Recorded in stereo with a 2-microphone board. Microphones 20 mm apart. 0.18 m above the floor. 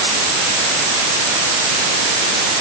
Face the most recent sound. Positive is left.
No sound to turn to.